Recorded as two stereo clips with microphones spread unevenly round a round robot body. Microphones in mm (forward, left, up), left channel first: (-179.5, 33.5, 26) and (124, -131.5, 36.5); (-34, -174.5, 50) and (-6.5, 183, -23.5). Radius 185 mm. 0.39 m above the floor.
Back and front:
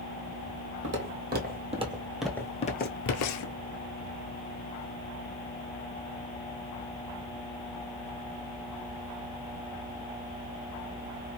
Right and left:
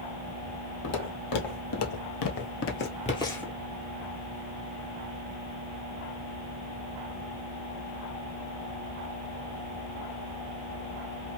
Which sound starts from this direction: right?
Footsteps, at 0.8 s.